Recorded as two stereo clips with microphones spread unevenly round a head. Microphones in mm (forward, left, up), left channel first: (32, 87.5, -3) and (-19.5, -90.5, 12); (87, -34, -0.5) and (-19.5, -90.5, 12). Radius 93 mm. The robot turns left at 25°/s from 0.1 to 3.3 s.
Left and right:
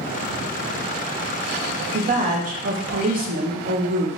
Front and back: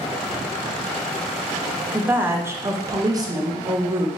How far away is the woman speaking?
About 0.6 m.